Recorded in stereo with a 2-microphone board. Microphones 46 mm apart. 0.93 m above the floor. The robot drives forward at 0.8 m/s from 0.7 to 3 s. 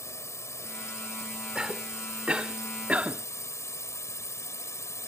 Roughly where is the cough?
Centre.